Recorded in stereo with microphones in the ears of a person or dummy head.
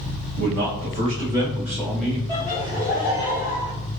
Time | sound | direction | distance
0.4 | a man speaking | 55° right (ahead or behind) | 0.9 m
2.3 | laughter | 25° right (ahead or behind) | 1.5 m